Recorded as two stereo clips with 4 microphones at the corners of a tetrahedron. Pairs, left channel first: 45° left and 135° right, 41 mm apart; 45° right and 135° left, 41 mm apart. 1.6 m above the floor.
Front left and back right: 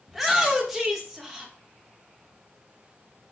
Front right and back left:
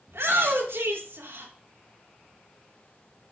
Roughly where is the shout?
Behind left.